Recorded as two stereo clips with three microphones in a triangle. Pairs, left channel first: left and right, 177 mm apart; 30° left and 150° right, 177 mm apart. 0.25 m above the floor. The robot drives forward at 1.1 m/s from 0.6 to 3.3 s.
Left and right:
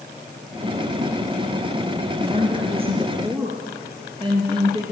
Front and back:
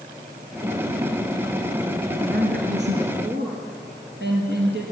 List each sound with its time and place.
2.2 s a woman speaking: 140° right, 3 m; by 4.8 s 150° right, 4 m